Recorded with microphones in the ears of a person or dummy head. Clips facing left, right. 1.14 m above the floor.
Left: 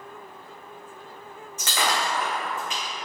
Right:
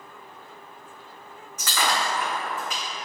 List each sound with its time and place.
1.6 s breaking glass: 15° left (ahead or behind), 1.4 m